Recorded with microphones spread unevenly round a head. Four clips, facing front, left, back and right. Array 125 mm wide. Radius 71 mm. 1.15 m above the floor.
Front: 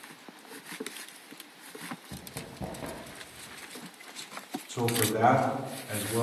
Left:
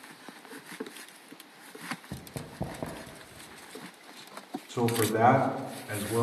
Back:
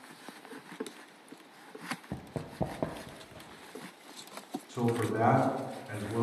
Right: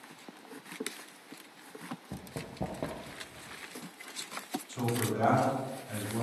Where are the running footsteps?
175° left, 1.5 m; by 3.6 s 170° right, 2 m.